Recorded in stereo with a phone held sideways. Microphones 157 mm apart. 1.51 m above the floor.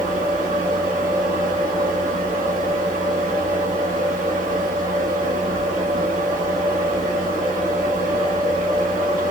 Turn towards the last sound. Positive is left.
turn(degrees=-65)  # may be behind; listen again after turning